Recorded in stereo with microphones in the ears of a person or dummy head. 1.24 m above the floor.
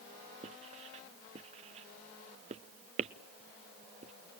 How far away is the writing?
About 0.6 m.